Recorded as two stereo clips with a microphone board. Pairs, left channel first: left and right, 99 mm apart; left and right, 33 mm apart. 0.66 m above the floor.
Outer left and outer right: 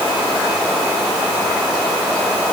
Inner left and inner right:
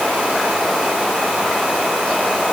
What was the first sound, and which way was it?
Only background noise.